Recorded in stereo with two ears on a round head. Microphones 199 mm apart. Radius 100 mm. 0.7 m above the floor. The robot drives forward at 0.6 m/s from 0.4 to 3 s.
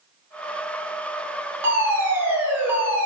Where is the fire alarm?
10° right (ahead or behind), 5 m.